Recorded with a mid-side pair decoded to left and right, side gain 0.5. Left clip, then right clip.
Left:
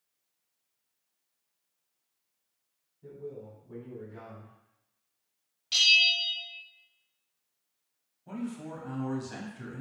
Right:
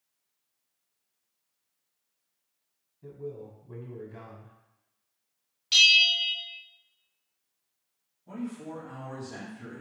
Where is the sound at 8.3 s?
60° left, 1.2 m.